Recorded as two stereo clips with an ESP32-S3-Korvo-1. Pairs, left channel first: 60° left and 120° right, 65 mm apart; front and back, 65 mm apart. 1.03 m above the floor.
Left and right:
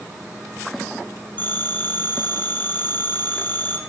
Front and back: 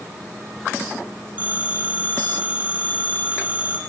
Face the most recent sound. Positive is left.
turn(degrees=115)